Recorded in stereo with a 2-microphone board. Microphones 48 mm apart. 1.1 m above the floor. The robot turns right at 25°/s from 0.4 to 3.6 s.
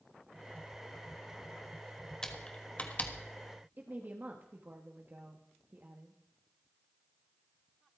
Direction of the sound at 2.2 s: 15° left (ahead or behind).